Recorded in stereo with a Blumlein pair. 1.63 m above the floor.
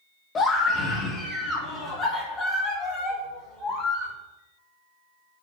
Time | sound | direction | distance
0.3 | a scream | 20° left | 2.0 m